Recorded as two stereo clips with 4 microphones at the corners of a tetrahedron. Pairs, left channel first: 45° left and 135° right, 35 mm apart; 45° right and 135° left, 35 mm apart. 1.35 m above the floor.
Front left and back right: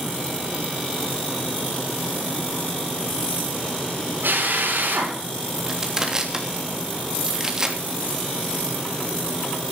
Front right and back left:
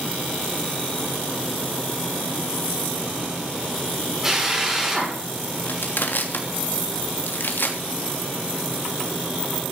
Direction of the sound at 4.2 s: 150° right.